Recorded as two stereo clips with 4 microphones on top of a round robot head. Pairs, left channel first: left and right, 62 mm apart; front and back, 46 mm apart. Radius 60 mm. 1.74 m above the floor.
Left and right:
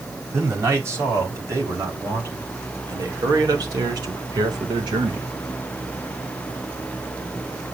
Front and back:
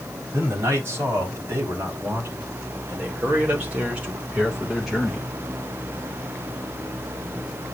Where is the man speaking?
135° right, 5 m; by 5.3 s 80° right, 2 m.